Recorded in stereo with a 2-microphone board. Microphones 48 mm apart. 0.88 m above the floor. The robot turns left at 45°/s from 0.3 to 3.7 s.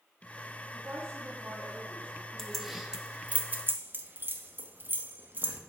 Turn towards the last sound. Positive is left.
turn(degrees=-45)  # may be behind; listen again after turning